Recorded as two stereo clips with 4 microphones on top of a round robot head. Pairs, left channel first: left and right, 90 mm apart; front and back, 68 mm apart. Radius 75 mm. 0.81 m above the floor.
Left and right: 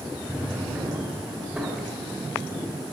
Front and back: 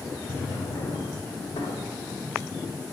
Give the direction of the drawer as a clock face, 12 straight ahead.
12 o'clock.